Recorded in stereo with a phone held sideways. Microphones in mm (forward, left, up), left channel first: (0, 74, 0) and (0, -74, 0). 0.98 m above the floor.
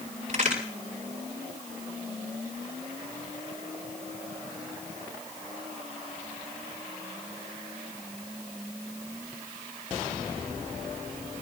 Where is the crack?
55° right (ahead or behind), 5.5 m.